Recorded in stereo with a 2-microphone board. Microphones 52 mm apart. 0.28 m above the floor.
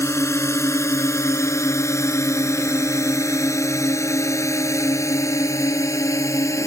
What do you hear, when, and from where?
0.0 s a drone: 65° left (ahead or behind); by 6.7 s 75° left (ahead or behind)